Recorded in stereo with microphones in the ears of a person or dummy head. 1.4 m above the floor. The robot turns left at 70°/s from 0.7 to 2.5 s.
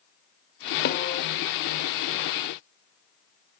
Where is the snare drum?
55° left (ahead or behind), 2.5 m; by 1.2 s 30° left (ahead or behind), 2.5 m.